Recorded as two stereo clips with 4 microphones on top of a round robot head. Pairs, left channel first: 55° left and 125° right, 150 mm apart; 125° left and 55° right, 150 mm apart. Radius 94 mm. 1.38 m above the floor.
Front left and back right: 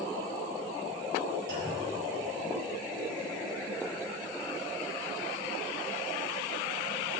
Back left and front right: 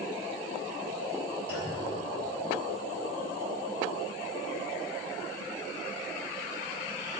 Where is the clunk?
135° right, 4.5 m.